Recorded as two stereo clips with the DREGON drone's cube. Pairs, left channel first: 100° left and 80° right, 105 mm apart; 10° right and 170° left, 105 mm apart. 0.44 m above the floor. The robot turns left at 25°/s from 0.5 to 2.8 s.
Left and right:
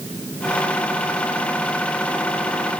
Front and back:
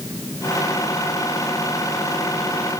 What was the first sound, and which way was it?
Only background noise.